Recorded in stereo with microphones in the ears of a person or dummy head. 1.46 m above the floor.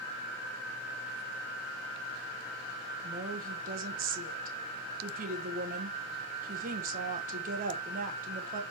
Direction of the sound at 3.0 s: 40° right (ahead or behind).